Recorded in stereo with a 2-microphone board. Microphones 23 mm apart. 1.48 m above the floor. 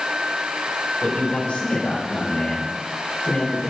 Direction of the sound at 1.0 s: 85° left.